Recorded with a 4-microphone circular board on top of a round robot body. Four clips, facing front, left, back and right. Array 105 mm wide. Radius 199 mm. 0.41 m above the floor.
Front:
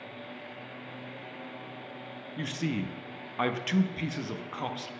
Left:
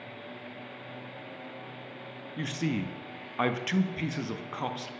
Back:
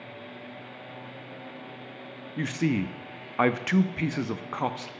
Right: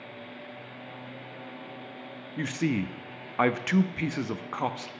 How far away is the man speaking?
About 0.8 m.